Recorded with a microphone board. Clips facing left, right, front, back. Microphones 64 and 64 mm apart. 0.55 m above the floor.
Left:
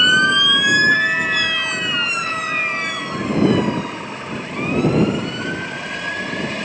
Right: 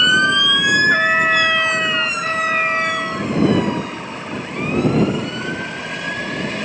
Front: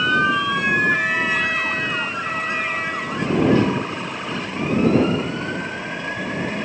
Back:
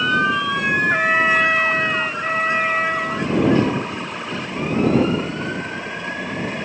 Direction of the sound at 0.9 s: 135° right.